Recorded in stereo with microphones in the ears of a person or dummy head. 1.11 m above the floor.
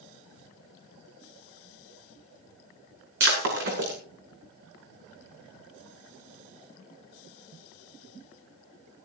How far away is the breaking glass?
About 6.5 m.